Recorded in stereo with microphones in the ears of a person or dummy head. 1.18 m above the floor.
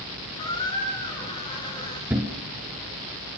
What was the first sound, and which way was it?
A squeak, 20° left (ahead or behind).